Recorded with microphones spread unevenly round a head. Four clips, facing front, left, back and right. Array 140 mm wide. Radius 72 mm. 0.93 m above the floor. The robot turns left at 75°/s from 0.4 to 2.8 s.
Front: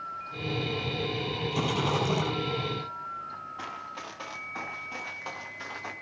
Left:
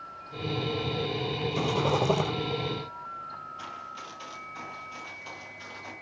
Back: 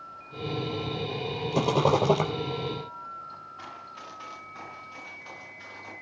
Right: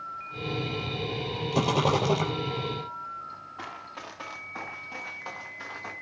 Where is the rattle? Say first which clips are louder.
Right 3 dB, back 7 dB; 150° right, 4 m; by 2.3 s 150° left, 4 m.